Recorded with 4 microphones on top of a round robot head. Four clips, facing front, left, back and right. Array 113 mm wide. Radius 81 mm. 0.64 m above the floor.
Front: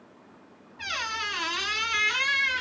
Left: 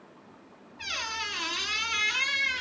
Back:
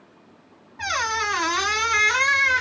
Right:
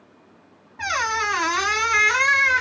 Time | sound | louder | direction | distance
0.8 | a squeak | right 13 dB, back 8 dB | 125° right | 0.5 m